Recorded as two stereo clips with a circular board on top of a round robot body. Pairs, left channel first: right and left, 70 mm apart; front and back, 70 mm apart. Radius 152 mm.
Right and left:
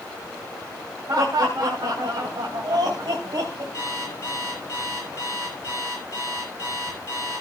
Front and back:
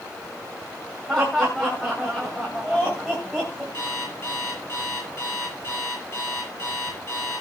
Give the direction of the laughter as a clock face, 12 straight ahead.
9 o'clock.